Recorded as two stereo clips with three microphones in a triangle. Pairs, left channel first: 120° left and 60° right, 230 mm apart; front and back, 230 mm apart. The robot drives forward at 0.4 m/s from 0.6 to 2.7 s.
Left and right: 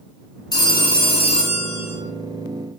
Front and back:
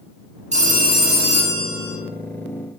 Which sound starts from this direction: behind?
A phone ringing, at 0.5 s.